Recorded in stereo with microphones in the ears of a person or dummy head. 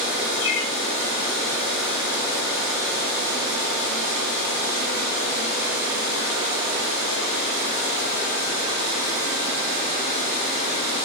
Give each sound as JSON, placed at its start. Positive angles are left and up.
{"t": 0.4, "sound": "a bird", "side_deg": 80, "distance_m": 3.0}